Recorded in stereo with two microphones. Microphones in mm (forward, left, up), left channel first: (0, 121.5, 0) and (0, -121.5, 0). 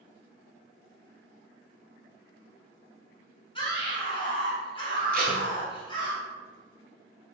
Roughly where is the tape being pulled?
Right.